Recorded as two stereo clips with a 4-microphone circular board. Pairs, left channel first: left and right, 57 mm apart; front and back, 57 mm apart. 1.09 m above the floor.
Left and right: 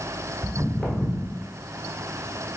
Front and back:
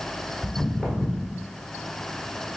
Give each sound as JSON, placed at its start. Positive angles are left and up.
{"t": 0.4, "sound": "footsteps", "azimuth_deg": 140, "distance_m": 1.1}